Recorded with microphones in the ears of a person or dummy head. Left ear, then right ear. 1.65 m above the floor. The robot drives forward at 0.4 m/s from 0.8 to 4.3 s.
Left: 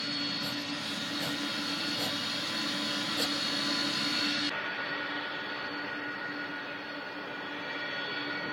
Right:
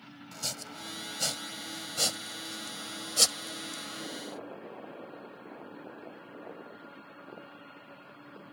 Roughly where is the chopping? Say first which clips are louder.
Left 5 dB; right.